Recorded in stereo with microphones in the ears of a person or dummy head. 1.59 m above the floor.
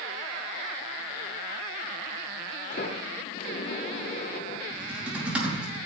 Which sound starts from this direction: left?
A sliding door, at 2.7 s.